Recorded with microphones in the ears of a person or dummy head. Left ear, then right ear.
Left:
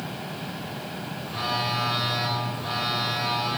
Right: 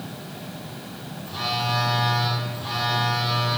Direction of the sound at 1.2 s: 40° left (ahead or behind).